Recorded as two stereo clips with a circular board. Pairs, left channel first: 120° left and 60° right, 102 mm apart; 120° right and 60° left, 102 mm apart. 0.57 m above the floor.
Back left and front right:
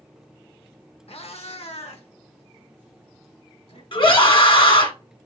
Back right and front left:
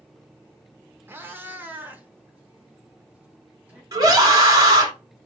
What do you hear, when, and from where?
1.1 s a cat meowing: 130° left, 0.7 m; by 3.8 s 135° left, 2 m
3.9 s a scream: 105° left, 1.8 m